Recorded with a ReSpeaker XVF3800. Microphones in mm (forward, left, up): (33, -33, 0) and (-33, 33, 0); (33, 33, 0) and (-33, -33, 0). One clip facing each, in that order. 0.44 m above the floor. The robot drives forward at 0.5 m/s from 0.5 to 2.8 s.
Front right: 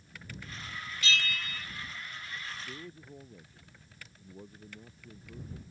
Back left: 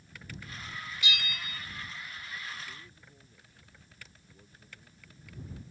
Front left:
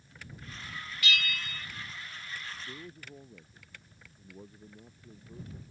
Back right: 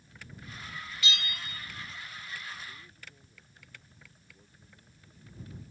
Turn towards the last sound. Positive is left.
turn(degrees=5)